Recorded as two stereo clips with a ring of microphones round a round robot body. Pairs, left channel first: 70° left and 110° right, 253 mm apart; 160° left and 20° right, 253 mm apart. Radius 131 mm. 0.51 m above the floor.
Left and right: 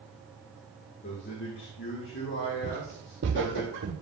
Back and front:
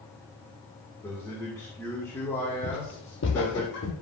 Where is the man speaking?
80° left, 1.7 m.